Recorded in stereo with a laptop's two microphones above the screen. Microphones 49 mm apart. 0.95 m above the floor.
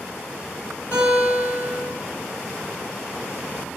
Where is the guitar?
55° left (ahead or behind), 3.5 m.